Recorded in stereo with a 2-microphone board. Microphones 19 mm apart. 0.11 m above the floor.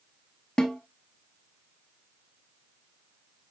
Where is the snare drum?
50° left (ahead or behind), 1.4 m.